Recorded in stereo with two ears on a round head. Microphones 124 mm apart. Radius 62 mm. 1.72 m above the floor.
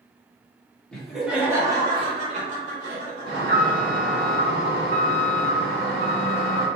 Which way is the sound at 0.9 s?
5° left (ahead or behind).